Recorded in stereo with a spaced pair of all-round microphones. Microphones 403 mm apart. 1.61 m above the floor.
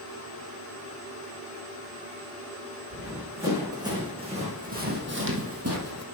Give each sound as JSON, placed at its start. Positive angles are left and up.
{"t": 2.9, "sound": "running footsteps", "side_deg": -5, "distance_m": 5.0}